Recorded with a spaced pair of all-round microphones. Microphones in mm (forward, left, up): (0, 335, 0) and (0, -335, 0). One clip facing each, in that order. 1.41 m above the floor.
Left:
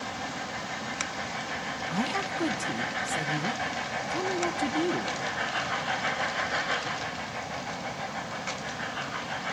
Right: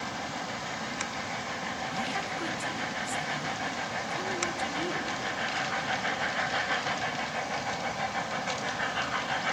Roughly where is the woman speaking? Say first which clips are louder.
Left 8 dB; left.